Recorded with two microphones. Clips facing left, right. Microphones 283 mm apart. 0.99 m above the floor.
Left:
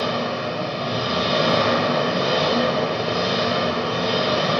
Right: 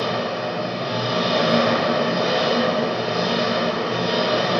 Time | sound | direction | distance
0.0 | an engine running | 45° left (ahead or behind) | 1.7 m